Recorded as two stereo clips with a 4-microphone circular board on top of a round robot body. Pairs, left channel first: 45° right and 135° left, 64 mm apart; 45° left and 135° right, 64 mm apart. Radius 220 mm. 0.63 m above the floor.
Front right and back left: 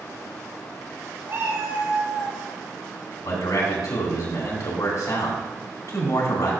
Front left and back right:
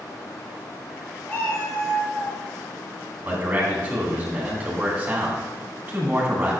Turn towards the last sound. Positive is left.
turn(degrees=-65)